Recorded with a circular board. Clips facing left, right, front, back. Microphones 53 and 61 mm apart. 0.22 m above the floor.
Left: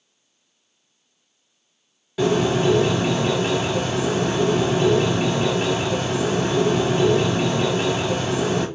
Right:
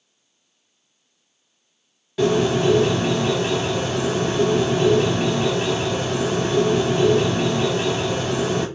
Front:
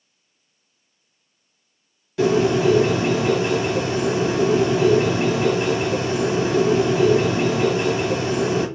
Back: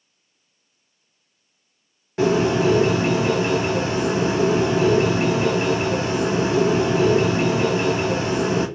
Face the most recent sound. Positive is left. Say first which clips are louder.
# right 1 dB, front 1 dB
turn(degrees=170)